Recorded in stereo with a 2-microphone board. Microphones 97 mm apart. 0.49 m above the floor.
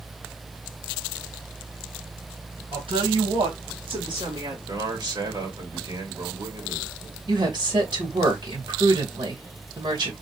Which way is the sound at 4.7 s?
50° right (ahead or behind).